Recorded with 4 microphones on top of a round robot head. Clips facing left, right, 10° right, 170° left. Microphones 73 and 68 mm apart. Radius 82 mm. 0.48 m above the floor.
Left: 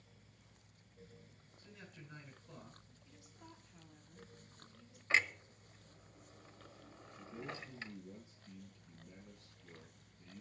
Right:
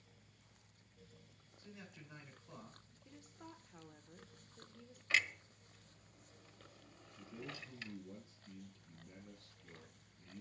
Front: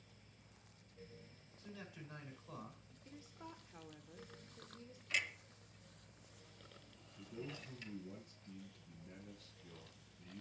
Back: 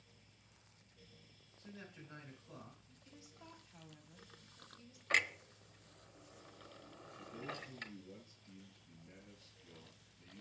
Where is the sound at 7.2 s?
40° right, 4.5 m.